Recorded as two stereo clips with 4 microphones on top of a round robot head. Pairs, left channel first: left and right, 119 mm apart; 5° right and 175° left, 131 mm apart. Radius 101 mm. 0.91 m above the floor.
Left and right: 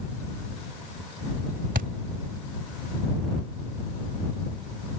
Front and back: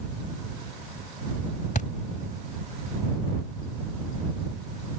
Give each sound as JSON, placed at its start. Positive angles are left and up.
{"t": 1.8, "sound": "a thud", "azimuth_deg": -55}